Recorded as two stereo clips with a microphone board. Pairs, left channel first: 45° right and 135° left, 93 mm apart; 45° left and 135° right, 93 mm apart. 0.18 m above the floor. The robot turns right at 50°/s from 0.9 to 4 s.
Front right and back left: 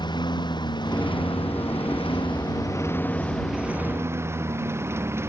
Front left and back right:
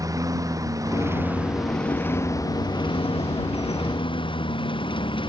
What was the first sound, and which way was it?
A lawn mower, 85° right.